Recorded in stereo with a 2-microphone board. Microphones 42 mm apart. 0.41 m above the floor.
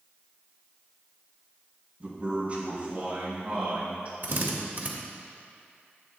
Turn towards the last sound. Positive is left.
turn(degrees=-55)  # may be behind; listen again after turning